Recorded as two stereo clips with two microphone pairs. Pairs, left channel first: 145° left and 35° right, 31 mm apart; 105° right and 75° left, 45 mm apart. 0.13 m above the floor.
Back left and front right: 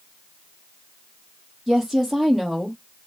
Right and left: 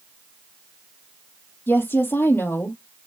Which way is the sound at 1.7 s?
115° right.